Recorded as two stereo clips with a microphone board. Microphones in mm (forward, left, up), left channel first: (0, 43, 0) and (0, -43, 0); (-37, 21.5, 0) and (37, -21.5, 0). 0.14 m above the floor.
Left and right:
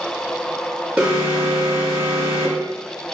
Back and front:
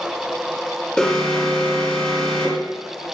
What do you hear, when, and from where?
1.0 s an alarm: 150° right, 1.5 m